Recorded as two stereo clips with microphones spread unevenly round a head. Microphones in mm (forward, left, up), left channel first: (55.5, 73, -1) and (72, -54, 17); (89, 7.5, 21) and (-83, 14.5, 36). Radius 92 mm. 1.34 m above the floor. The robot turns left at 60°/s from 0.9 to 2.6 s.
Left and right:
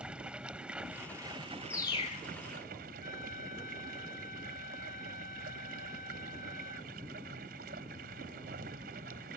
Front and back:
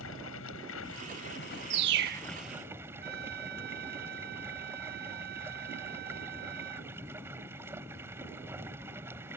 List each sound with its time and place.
0.0 s running water: 5° right; by 9.4 s 105° right
1.7 s a bird: 175° left; by 2.3 s 140° left
3.0 s a trumpet: 150° left